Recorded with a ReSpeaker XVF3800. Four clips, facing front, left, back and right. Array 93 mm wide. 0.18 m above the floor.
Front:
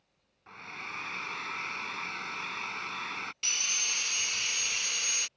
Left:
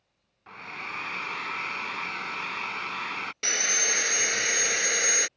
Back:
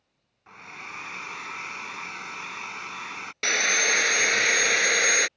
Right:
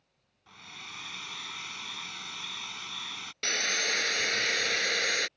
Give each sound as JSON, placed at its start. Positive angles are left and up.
{"t": 0.5, "sound": "a hair dryer", "azimuth_deg": 100}
{"t": 3.4, "sound": "sawing", "azimuth_deg": 170}